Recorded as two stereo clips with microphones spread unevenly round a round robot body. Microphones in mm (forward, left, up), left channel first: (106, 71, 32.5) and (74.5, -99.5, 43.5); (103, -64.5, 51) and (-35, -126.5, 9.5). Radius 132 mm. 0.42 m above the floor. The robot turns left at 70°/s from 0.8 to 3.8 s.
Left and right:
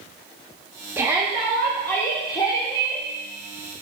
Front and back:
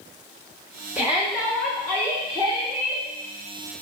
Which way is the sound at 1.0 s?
165° right.